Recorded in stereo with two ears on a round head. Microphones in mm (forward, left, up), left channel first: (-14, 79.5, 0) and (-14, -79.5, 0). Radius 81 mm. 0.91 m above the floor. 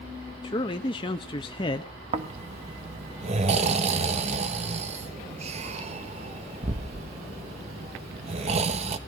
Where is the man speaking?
25° left (ahead or behind), 0.8 m.